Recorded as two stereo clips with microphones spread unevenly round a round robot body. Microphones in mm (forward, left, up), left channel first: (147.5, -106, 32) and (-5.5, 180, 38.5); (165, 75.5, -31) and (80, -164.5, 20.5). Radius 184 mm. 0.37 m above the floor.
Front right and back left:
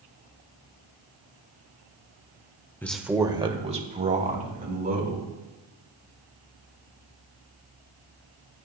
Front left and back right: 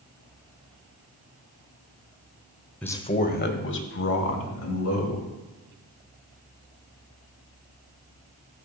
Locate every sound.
2.8 s a man speaking: 15° left, 0.9 m; by 5.3 s 55° left, 3.5 m